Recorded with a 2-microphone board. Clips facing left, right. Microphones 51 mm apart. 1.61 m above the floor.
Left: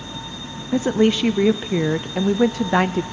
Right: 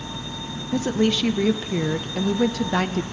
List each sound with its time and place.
0.7 s a woman speaking: 25° left (ahead or behind), 0.5 m